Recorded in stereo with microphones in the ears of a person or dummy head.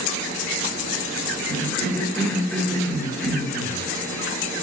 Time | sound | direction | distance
1.5 | a cough | 10° left (ahead or behind) | 1.5 m